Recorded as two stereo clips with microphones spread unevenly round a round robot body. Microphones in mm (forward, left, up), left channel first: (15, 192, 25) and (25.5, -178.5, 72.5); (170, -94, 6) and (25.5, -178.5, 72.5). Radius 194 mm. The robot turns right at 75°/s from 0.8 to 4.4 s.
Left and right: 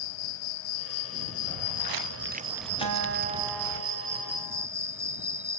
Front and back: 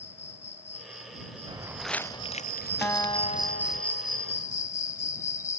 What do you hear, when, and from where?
0.0 s an insect: 85° left; by 5.6 s 5° right
1.5 s footsteps: 90° right; by 3.8 s 90° left
2.8 s a guitar: 55° right; by 4.7 s 65° left